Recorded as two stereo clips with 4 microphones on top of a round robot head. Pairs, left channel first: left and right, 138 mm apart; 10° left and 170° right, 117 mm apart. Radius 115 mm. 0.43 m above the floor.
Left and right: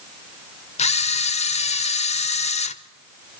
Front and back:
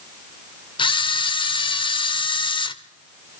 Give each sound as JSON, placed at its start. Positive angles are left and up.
{"t": 0.8, "sound": "a camera shutter", "azimuth_deg": 55, "distance_m": 0.9}